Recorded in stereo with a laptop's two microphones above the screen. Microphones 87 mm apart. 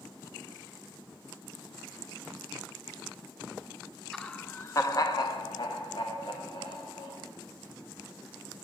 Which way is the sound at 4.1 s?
5° left (ahead or behind).